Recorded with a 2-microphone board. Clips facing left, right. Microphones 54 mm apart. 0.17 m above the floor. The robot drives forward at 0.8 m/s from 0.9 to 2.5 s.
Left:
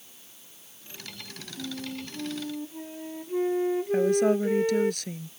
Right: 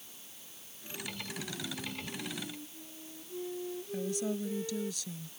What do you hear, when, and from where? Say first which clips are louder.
1.6 s a flute: left 5 dB; 60° left (ahead or behind); by 4.9 s 65° left (ahead or behind)
3.9 s a woman speaking: left 13 dB; 60° left (ahead or behind)